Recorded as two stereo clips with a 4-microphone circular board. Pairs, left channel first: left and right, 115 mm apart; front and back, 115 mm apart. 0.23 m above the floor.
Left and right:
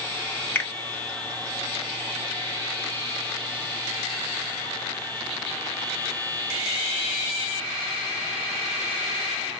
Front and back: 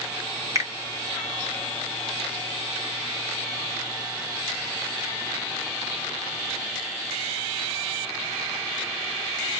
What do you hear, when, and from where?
0.6 s a finger snap: 145° left, 0.8 m